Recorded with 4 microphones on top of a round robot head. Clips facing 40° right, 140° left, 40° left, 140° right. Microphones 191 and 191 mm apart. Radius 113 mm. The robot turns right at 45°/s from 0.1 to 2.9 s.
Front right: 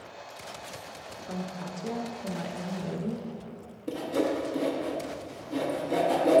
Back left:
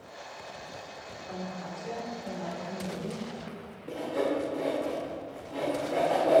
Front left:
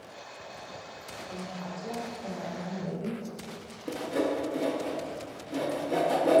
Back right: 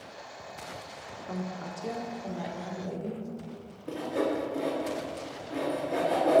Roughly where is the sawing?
Ahead.